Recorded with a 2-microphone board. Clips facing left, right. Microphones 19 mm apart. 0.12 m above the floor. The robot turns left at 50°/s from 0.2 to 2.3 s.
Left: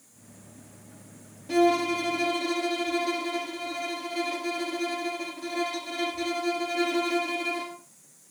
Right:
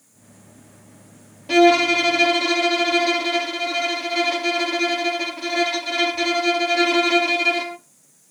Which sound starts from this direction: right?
A violin, at 1.5 s.